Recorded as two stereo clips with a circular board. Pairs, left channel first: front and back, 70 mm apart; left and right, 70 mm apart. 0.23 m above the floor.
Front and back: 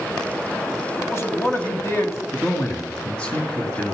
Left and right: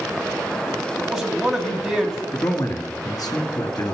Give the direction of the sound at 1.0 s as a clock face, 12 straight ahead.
12 o'clock.